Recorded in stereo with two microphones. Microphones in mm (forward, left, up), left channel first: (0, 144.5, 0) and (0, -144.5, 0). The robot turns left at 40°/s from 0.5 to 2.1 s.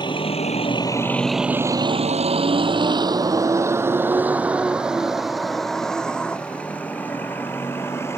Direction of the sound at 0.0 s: 15° left (ahead or behind).